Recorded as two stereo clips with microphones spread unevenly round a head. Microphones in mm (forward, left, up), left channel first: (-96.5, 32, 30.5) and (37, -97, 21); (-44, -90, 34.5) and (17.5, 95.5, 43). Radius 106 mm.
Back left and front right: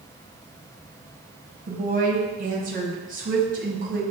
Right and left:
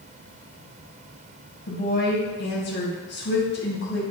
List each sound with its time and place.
1.7 s a woman speaking: 85° right, 1.4 m